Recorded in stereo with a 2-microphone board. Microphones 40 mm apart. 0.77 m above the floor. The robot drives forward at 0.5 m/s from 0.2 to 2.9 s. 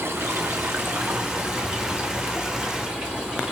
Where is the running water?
80° right, 0.8 m; by 3.5 s 25° right (ahead or behind), 1.7 m.